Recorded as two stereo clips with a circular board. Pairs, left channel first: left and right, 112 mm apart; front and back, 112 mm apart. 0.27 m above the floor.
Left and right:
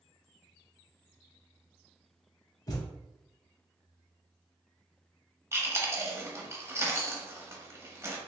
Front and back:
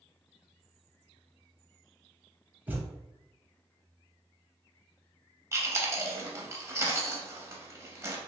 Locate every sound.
2.7 s a thud: 115° left, 0.7 m
5.5 s chewing: 135° right, 0.6 m